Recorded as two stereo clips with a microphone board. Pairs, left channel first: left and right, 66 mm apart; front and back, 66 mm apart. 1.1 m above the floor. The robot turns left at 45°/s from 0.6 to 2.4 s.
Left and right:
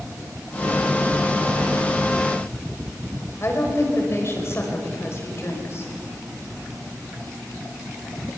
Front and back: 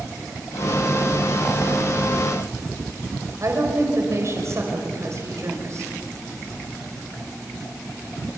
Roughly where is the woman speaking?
Behind left.